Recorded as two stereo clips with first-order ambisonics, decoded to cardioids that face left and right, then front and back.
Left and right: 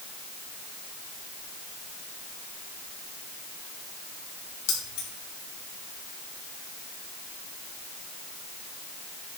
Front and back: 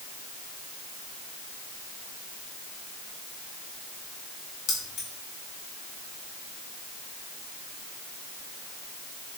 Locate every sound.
4.7 s keys jangling: 55° left, 4.5 m